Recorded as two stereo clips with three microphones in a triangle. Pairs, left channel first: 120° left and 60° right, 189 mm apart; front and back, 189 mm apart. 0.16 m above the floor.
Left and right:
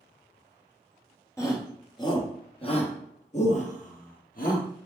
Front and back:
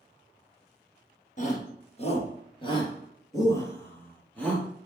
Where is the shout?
45° left, 3 m; by 4.7 s 85° left, 3 m.